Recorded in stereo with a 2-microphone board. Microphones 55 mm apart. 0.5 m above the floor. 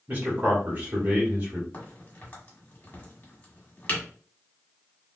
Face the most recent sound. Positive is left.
turn(degrees=35)  # may be behind; listen again after turning